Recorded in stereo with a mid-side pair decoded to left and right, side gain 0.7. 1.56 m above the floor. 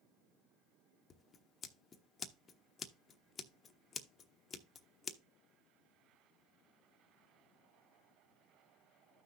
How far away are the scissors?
About 0.9 m.